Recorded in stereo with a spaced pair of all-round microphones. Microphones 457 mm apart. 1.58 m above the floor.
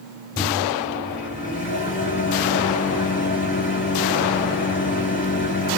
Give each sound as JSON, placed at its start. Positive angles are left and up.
{"t": 0.4, "sound": "a microwave", "side_deg": 25, "distance_m": 3.5}